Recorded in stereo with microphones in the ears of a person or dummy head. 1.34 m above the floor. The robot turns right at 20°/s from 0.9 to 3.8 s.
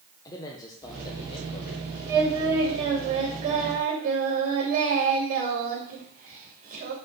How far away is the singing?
About 2.5 m.